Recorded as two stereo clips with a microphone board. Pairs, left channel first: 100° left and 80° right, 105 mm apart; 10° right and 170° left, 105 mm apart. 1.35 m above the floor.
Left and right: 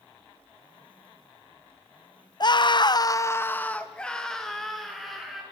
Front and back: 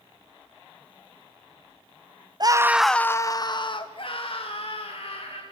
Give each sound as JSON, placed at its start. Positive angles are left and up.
{"t": 2.4, "sound": "a scream", "azimuth_deg": 130, "distance_m": 0.7}